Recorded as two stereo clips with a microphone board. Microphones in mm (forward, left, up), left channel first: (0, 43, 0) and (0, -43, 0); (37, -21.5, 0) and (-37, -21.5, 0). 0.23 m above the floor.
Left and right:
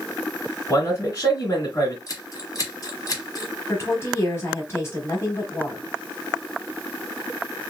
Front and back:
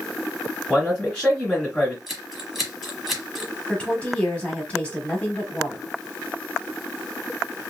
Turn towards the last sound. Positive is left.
turn(degrees=60)